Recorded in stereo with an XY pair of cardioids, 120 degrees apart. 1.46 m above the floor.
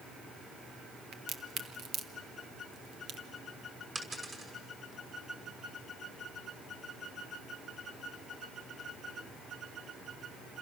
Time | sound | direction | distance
1.1 | a crack | 60° right | 1.8 m
4.0 | a dropped coin | 25° right | 6 m